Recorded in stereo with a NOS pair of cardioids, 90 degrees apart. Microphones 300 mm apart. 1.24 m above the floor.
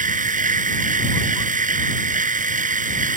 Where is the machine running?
25° right.